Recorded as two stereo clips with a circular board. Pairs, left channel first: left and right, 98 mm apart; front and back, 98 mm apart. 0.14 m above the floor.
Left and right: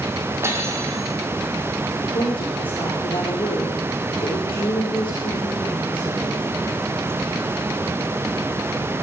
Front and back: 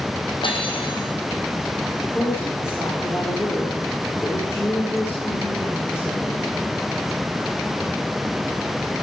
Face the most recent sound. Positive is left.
turn(degrees=65)